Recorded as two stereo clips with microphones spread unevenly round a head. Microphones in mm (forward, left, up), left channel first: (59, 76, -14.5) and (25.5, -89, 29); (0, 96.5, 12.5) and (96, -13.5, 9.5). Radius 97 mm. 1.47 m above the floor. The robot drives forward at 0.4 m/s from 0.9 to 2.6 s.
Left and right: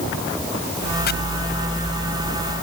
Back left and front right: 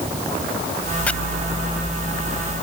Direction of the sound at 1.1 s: 50° left.